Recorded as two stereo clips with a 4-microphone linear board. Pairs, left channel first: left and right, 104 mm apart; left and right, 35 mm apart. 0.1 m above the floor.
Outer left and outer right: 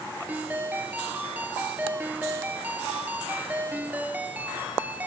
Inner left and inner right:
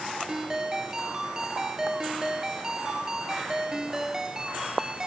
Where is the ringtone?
15° right (ahead or behind), 1.1 m.